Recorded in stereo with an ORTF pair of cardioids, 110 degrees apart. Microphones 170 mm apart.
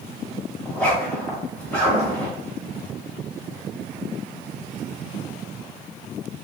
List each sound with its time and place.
0.7 s a zipper: 10° left, 1.2 m